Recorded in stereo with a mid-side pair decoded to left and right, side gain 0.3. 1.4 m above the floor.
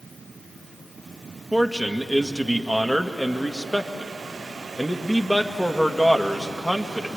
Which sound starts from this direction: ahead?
A man speaking, at 1.5 s.